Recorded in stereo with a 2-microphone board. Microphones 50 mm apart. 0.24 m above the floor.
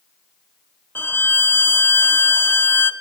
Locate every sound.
0.9 s a violin: 45° left (ahead or behind), 0.5 m